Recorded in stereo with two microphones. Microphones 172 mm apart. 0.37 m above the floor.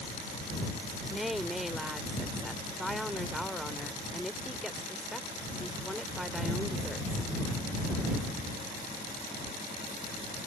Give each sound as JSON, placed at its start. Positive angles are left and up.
{"t": 1.1, "sound": "a woman speaking", "side_deg": 0}